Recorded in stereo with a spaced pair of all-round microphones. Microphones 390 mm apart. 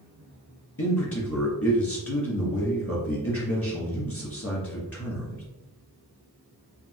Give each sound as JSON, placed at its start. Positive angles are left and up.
{"t": 0.8, "sound": "a man speaking", "side_deg": 35, "distance_m": 1.5}